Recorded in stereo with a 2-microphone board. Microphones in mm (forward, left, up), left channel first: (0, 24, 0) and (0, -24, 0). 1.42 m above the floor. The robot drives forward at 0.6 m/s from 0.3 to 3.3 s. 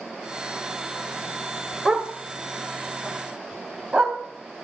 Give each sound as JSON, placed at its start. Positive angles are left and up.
{"t": 1.9, "sound": "a dog barking", "side_deg": 0, "distance_m": 1.9}